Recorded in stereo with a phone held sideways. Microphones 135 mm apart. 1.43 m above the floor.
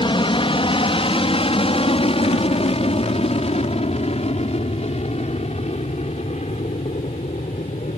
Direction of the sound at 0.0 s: 40° left (ahead or behind).